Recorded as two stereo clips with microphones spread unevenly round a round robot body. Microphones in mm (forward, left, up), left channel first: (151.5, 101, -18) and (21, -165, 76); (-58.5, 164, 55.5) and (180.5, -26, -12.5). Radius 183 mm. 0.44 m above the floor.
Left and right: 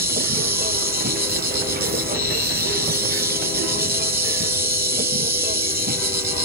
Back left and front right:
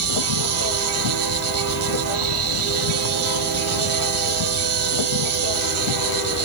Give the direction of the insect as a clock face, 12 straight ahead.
2 o'clock.